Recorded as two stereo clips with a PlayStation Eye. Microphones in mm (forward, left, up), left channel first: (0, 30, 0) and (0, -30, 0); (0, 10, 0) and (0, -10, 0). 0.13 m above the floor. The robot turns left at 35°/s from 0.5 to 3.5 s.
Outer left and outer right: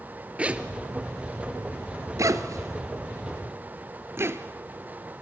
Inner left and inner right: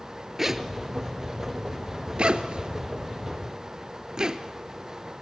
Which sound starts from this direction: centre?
A zipper, at 0.4 s.